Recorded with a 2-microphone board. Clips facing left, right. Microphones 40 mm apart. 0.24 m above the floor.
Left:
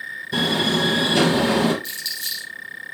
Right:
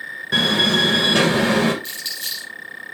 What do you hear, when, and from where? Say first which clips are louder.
0.3 s a door slam: right 3 dB; 65° right (ahead or behind), 2.5 m
1.8 s crumpling: even; 40° right (ahead or behind), 6 m